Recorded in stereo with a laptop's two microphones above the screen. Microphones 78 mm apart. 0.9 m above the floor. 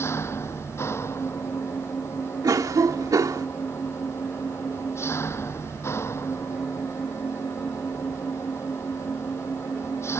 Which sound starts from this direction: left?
An engine running, at 0.0 s.